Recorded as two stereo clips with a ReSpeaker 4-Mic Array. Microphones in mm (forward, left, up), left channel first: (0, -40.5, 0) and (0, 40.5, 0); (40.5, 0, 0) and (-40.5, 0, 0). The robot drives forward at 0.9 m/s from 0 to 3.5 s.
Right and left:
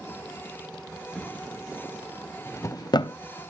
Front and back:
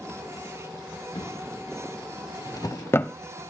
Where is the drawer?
15° right, 1.9 m; by 3.2 s 80° right, 0.5 m.